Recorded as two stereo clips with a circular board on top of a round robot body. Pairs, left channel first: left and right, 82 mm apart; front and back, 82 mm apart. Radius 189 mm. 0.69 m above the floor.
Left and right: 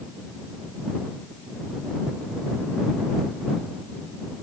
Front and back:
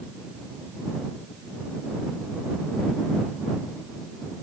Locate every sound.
Only background noise.